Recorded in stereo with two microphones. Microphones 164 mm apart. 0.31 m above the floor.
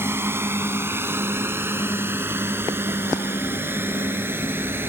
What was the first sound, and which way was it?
A drone, 15° right (ahead or behind).